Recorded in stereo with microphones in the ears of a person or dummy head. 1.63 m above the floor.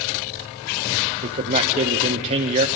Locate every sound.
1.2 s a man speaking: 35° right (ahead or behind), 1.0 m